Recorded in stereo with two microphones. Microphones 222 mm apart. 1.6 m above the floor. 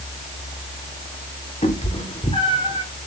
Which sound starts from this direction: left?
A cat meowing, at 1.6 s.